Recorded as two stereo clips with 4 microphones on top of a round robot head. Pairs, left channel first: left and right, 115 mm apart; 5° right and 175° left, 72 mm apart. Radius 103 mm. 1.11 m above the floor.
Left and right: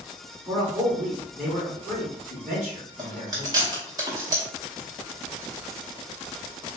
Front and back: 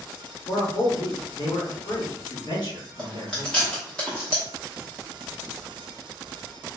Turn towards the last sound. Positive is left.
turn(degrees=-80)